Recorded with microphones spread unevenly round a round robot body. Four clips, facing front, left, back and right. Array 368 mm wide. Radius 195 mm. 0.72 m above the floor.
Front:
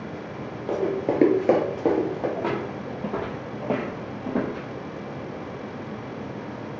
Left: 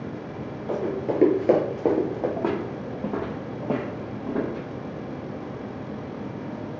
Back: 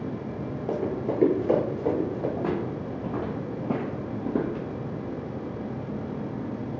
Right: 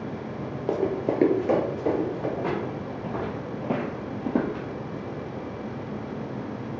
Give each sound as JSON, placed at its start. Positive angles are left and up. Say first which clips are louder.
{"t": 0.7, "sound": "running footsteps", "louder": "right 1 dB, front 4 dB", "azimuth_deg": -95, "distance_m": 1.0}
{"t": 2.4, "sound": "footsteps", "louder": "left 2 dB, front 1 dB", "azimuth_deg": 80, "distance_m": 1.3}